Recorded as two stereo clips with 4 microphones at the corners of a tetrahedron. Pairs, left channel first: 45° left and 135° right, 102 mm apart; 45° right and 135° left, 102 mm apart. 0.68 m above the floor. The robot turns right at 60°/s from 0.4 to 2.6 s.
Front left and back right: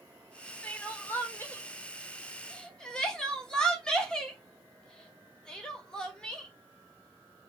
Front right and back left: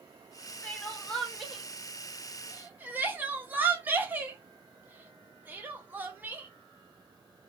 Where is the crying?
5° right, 0.8 m; by 6.5 s 115° left, 0.8 m.